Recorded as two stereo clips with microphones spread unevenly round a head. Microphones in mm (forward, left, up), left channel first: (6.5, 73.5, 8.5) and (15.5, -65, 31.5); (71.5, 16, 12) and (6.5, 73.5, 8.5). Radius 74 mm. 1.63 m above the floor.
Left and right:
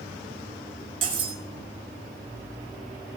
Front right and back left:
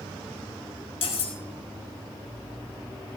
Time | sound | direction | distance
1.0 | cutlery clinking | 35° right | 7 m